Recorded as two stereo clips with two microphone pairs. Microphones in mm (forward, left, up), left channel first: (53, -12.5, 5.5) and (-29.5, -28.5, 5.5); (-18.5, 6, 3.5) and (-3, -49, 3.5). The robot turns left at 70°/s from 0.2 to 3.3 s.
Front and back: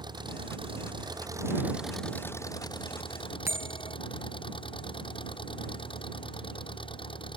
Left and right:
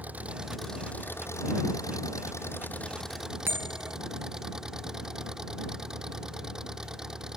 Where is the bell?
115° right.